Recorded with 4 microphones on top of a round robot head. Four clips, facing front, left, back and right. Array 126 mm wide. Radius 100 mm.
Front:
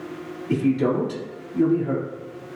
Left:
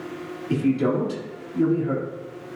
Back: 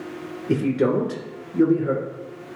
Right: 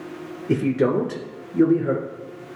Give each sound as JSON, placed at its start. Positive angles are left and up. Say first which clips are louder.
{"t": 0.5, "sound": "a man speaking", "louder": "right 2 dB, even", "azimuth_deg": -135, "distance_m": 2.0}